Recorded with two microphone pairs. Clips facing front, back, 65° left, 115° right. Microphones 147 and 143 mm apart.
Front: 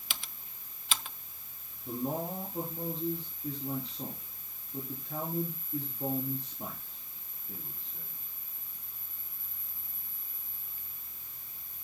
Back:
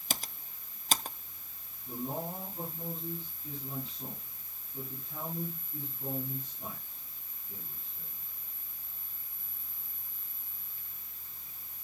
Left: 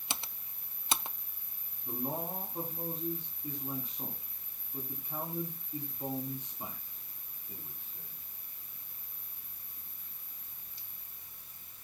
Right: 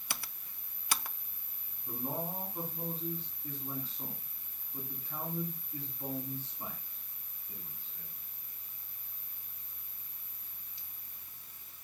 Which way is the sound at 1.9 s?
5° right.